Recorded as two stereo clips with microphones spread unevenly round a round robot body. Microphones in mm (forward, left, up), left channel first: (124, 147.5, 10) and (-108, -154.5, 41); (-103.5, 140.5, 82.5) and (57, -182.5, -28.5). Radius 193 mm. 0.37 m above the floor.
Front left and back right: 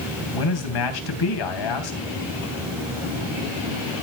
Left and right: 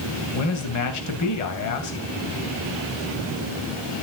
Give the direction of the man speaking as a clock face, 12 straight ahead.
10 o'clock.